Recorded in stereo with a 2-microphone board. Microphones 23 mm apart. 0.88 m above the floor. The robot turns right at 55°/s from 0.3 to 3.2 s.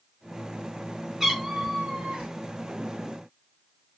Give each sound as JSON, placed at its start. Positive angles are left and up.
{"t": 1.2, "sound": "a cat meowing", "azimuth_deg": -170, "distance_m": 2.0}